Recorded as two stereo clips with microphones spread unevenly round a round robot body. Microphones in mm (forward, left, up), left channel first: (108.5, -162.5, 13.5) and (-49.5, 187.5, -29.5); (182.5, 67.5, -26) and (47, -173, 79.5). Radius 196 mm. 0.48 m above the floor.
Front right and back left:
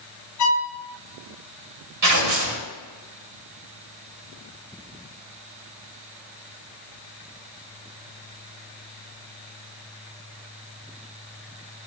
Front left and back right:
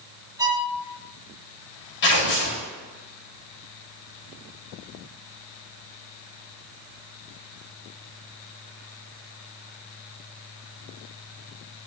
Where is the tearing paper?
80° left, 2.5 m.